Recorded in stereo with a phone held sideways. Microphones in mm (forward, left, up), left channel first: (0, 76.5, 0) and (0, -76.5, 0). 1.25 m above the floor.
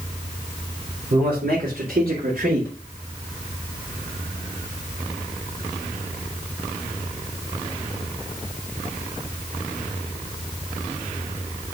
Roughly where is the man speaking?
Right.